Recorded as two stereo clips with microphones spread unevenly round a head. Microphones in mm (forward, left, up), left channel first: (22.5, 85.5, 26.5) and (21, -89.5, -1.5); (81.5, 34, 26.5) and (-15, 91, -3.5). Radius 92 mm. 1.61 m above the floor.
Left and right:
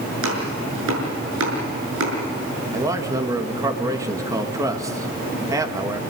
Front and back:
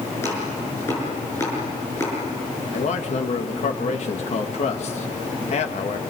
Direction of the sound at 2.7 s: 15° right.